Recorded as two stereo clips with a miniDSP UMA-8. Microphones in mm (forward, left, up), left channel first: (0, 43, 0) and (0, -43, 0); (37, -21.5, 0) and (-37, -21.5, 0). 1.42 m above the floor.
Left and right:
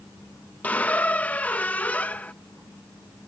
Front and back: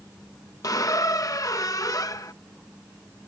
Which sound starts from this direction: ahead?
A squeak, at 0.6 s.